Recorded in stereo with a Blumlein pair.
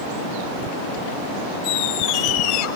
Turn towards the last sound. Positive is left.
turn(degrees=45)